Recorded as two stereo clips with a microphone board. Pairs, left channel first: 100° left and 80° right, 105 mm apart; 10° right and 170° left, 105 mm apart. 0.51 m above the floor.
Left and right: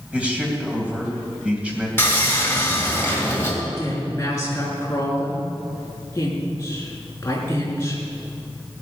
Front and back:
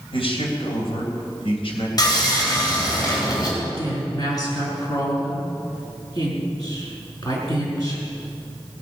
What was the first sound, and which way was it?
A man speaking, straight ahead.